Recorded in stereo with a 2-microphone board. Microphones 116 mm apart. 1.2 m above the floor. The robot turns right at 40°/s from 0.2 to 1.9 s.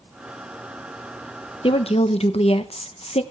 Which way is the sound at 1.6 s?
55° left (ahead or behind).